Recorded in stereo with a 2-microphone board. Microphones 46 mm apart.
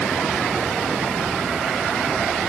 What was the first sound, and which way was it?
Only background noise.